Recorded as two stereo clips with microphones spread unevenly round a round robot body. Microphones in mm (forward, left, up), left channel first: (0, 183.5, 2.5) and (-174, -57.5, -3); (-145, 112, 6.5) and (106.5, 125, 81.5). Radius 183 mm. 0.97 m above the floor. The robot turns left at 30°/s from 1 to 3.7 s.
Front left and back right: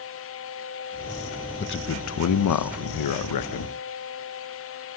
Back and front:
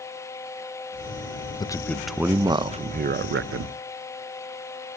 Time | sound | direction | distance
1.6 | a man speaking | 110° left | 0.5 m